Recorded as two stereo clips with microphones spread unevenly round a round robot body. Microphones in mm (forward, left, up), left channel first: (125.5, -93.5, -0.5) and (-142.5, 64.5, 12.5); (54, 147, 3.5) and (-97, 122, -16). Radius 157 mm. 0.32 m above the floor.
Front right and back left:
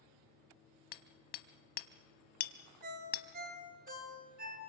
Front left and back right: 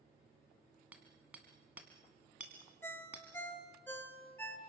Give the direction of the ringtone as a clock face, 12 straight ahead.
9 o'clock.